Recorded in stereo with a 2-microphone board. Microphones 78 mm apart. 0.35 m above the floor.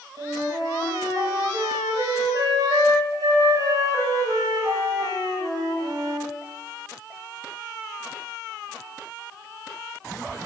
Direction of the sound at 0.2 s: 55° right (ahead or behind).